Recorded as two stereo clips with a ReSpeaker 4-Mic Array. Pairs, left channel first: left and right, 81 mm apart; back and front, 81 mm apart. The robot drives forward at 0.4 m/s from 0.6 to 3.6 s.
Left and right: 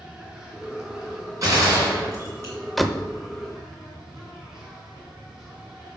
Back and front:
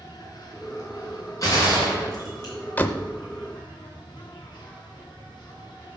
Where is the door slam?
175° left, 0.5 m; by 3.1 s straight behind, 0.6 m.